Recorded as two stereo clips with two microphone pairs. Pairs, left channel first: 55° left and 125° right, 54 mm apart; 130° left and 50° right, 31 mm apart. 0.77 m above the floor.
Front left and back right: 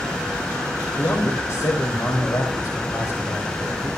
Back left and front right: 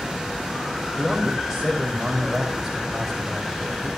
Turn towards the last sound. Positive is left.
turn(degrees=30)